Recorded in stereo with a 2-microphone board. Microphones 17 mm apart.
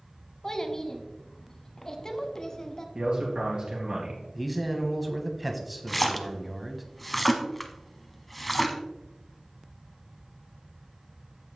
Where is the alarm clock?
No alarm clock in this recording.